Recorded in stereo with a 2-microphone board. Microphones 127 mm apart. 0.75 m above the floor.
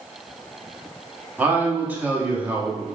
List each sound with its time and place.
1.4 s a man speaking: 15° right (ahead or behind), 1.1 m